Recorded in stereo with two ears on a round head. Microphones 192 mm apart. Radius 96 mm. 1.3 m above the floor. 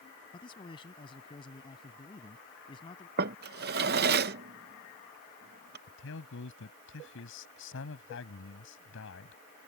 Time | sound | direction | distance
0.3 | a man speaking | 25° left (ahead or behind) | ?
3.2 | a drawer | 50° right (ahead or behind) | ?
5.9 | a man speaking | 60° left (ahead or behind) | ?